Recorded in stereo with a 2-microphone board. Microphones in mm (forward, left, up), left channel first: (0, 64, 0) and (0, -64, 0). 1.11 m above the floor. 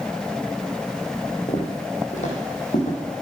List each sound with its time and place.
1.5 s footsteps: 55° left (ahead or behind), 2.5 m; by 3.2 s 70° left (ahead or behind), 4 m